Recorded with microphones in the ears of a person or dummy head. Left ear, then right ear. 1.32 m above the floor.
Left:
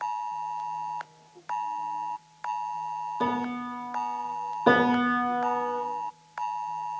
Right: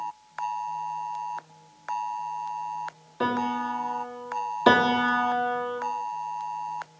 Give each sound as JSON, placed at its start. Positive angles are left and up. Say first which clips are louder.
{"t": 3.2, "sound": "a piano", "louder": "right 6 dB", "side_deg": -25, "distance_m": 3.0}
{"t": 4.7, "sound": "a piano", "louder": "right 2 dB", "side_deg": -80, "distance_m": 2.5}